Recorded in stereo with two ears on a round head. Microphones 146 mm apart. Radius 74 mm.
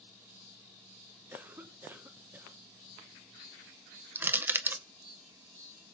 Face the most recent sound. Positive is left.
turn(degrees=-10)  # may be behind; listen again after turning